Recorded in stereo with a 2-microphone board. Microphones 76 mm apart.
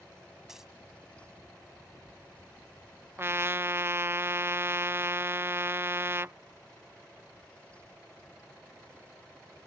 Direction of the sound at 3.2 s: 30° right (ahead or behind).